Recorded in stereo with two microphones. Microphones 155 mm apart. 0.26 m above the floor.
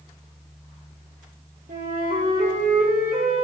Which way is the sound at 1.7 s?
75° right (ahead or behind).